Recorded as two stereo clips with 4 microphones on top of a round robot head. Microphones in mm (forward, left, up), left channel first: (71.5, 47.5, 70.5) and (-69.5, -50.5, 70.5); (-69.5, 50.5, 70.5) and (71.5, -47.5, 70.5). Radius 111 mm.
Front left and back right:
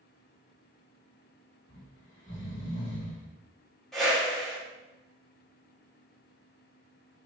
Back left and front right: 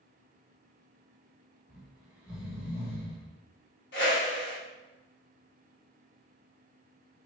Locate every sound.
1.7 s snoring: 45° left, 1.4 m
3.9 s a whoosh: 125° left, 1.9 m